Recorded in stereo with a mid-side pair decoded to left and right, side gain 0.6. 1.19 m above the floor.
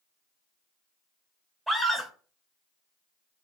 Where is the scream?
10° right, 0.6 m.